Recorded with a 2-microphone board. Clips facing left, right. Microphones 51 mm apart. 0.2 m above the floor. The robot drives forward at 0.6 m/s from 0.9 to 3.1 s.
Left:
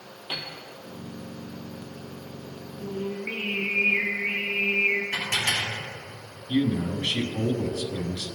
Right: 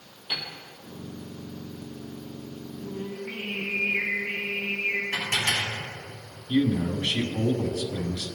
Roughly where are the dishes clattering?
Centre.